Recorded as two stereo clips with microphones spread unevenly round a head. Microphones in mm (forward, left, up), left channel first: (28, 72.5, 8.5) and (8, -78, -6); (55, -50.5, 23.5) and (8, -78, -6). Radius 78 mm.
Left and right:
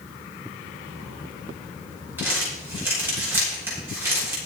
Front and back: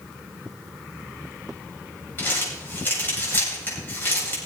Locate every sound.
2.2 s crumpling: 20° right, 9 m